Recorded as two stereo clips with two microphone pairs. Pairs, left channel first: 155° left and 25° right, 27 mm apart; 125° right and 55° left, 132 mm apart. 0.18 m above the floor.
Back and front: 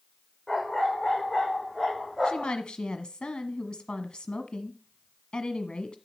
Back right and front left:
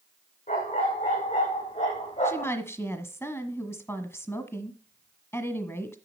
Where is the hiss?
I don't hear a hiss.